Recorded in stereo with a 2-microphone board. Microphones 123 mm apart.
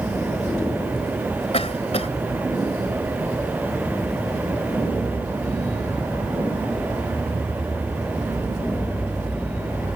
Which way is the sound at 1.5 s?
55° left (ahead or behind).